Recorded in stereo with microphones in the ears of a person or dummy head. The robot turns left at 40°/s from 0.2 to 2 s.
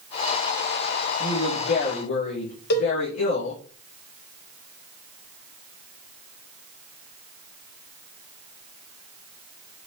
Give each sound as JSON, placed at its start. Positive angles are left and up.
{"t": 1.2, "sound": "a woman speaking", "azimuth_deg": 150, "distance_m": 3.0}
{"t": 2.7, "sound": "a cowbell", "side_deg": 70, "distance_m": 2.0}